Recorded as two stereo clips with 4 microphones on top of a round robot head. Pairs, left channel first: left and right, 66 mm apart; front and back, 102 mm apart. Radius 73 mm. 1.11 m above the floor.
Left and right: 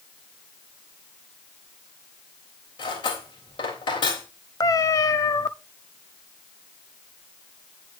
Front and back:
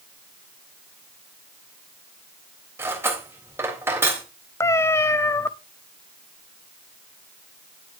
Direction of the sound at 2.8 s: 110° left.